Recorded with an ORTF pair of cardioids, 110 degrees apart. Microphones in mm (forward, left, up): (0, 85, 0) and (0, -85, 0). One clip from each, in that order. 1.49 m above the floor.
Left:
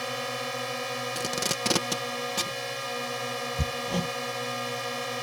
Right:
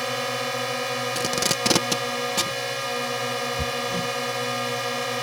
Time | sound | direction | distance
0.0 | a drone | 30° right | ?
1.1 | tape being pulled | 25° right | ?
3.6 | hammering | 25° left | ?